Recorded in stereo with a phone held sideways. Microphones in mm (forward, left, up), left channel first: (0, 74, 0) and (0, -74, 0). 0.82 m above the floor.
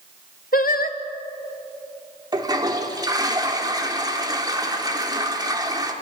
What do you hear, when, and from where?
0.5 s singing: 75° left (ahead or behind), 1.2 m
2.3 s a toilet flushing: 25° right (ahead or behind), 2.5 m